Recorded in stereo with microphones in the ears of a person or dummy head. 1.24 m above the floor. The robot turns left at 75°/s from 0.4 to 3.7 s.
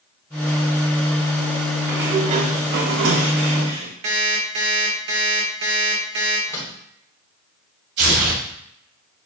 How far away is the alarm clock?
About 1.1 m.